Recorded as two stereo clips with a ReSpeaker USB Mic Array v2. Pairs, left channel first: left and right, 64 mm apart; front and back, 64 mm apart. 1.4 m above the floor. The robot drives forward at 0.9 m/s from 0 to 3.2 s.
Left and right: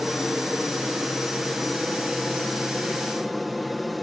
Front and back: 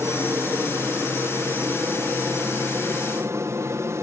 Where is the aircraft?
Straight behind.